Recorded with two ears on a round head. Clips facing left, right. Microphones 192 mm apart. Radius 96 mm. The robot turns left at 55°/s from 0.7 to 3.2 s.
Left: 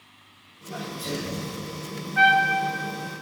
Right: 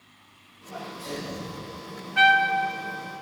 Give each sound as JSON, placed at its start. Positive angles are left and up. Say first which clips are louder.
{"t": 0.7, "sound": "a sneeze", "louder": "left 3 dB", "azimuth_deg": 75, "distance_m": 3.5}
{"t": 2.2, "sound": "a trumpet", "louder": "left 1 dB", "side_deg": -45, "distance_m": 0.9}